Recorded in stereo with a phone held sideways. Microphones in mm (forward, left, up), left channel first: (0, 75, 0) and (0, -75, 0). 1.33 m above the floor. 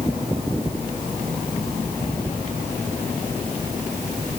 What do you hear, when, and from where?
Only background noise.